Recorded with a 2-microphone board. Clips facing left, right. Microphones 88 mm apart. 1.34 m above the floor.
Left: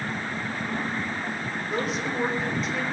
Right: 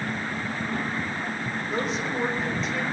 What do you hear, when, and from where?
1.7 s a woman speaking: centre (ahead or behind), 3.5 m